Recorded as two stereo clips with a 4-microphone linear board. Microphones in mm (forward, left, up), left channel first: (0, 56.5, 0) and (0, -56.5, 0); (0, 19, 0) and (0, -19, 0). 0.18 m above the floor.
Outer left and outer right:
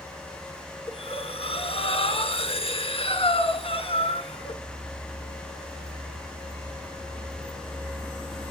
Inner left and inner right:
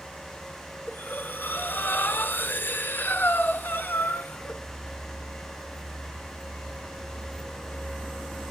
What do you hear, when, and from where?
0.9 s breathing: 60° left (ahead or behind), 2.5 m